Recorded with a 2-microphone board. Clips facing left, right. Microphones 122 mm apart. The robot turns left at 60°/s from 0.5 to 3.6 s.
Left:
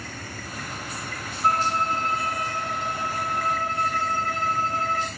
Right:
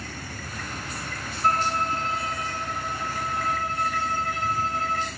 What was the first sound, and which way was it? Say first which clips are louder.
A violin: left 1 dB; 170° left.